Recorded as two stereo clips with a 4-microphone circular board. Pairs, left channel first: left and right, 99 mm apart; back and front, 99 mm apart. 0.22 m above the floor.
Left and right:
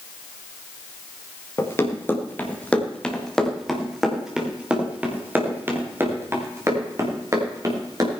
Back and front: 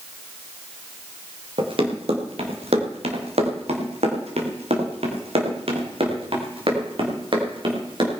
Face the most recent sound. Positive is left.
turn(degrees=-35)